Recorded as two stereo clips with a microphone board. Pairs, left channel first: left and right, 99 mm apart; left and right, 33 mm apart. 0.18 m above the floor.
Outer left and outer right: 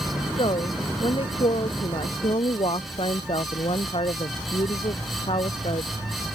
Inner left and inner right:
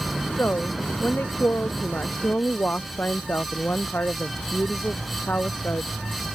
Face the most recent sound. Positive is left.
turn(degrees=70)  # may be behind; listen again after turning